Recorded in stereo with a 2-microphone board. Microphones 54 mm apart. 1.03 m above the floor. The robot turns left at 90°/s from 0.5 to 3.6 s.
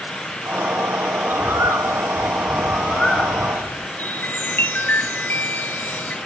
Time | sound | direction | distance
1.2 | a bird | 30° right | 3.5 m
4.0 | a chime | 35° left (ahead or behind) | 0.9 m